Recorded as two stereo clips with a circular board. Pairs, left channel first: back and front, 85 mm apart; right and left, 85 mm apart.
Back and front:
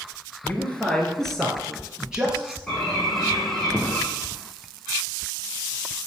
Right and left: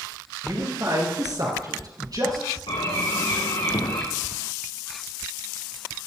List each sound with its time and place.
0.4 s a man speaking: 115° left, 2.5 m; by 2.6 s 70° left, 3 m
2.7 s a bird: 100° right, 3.5 m